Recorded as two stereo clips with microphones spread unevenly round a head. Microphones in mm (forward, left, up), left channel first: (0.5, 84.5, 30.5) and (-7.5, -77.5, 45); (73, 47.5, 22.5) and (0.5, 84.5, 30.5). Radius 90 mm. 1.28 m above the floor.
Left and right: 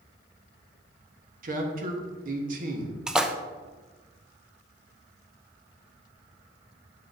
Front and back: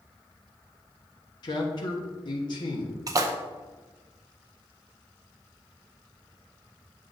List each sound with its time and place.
1.4 s a man speaking: 55° right, 1.2 m
3.1 s a splash: 175° left, 0.6 m